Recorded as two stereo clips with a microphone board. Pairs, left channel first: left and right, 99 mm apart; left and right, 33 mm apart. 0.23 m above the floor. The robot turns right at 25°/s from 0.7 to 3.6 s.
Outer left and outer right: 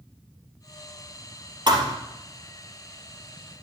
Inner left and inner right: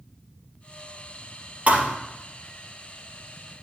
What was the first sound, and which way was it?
A thud, 50° right (ahead or behind).